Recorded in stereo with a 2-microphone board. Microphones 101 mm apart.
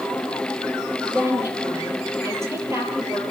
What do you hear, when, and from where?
1.0 s a woman speaking: 25° right (ahead or behind), 7.5 m